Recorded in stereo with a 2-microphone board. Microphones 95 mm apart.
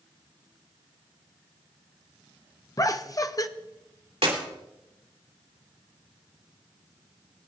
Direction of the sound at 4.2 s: 80° right.